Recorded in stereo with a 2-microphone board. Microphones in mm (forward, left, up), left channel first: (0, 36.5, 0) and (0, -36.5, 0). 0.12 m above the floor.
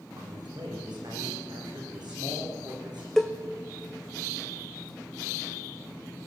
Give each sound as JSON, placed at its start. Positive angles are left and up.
{"t": 0.2, "sound": "a man speaking", "side_deg": -80, "distance_m": 7.5}
{"t": 3.2, "sound": "a cowbell", "side_deg": 5, "distance_m": 1.3}